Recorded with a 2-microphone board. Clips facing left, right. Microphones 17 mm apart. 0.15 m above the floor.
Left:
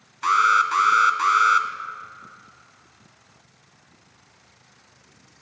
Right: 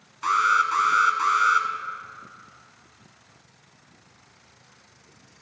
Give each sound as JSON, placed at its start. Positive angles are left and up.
{"t": 0.2, "sound": "an alarm", "side_deg": 15, "distance_m": 0.8}